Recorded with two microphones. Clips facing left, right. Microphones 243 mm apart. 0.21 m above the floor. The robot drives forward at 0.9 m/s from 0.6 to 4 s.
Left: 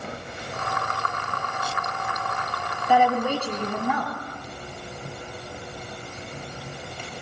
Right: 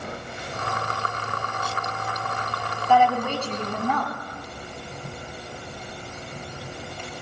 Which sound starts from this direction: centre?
A woman speaking, at 2.9 s.